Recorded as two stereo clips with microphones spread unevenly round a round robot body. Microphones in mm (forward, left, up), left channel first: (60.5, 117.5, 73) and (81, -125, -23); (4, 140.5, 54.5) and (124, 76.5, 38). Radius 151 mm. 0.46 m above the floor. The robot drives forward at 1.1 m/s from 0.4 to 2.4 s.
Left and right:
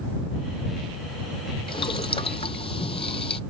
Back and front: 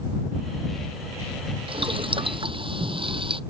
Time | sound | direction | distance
1.7 | boiling | 25° left | ?